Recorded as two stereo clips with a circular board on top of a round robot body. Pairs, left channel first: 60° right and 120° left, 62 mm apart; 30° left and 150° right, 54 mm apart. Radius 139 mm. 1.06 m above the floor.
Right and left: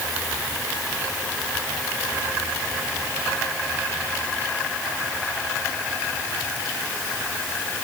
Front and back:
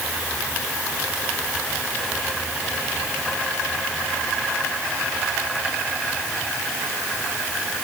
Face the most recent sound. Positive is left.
No sound to turn to.